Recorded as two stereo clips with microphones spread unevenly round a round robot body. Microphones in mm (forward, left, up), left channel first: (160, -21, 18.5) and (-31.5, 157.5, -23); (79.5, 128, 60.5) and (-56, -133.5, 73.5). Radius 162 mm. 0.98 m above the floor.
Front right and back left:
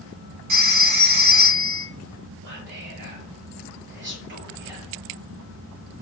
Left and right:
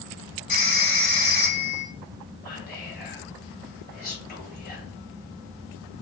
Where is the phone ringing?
130° left, 1.3 m.